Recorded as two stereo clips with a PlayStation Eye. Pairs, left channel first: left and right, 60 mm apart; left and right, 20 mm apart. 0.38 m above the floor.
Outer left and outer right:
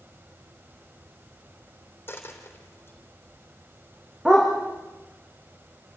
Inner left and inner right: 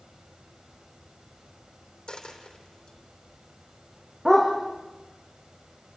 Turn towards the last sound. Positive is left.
turn(degrees=-10)  # may be behind; listen again after turning